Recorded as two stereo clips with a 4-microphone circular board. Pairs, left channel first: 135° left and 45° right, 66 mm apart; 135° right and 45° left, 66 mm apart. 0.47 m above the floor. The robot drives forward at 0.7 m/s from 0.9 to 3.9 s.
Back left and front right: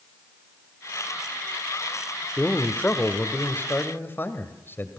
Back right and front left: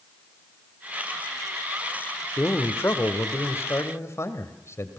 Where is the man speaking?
170° right, 1.3 m; by 5.0 s 175° right, 2 m.